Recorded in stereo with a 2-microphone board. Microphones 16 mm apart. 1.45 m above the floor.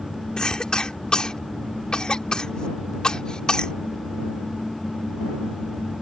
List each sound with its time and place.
0.4 s a cough: 75° left (ahead or behind)